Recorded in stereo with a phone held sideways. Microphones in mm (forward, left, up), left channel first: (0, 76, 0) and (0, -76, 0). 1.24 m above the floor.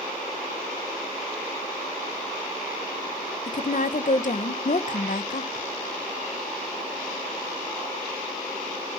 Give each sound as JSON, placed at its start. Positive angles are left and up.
{"t": 3.5, "sound": "a woman speaking", "side_deg": 55, "distance_m": 1.1}